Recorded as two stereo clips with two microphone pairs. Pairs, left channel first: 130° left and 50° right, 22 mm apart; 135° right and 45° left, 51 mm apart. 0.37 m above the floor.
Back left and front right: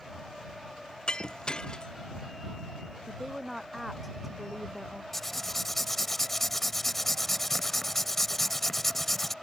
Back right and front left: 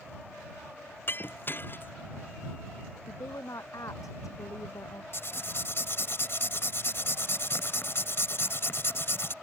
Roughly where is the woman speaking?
Behind right.